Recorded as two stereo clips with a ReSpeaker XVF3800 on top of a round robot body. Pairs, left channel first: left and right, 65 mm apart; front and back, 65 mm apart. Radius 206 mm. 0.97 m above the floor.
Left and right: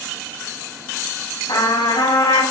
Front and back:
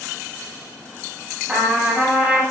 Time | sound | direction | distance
1.5 | a trumpet | 100° left | 9.5 m